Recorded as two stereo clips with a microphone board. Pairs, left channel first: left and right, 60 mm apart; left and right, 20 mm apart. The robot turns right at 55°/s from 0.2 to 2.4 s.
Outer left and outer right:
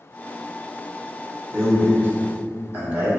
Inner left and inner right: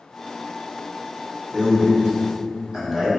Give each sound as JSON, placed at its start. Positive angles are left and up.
{"t": 1.5, "sound": "a man speaking", "side_deg": -50, "distance_m": 1.3}